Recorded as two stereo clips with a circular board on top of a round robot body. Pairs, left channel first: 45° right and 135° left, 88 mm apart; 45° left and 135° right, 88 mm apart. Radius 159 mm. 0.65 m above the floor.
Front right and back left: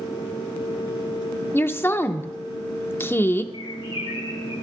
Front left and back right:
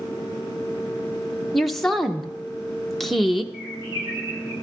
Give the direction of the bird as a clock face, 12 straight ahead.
2 o'clock.